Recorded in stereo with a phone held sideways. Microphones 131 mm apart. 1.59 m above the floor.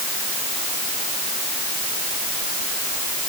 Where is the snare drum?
No snare drum in this recording.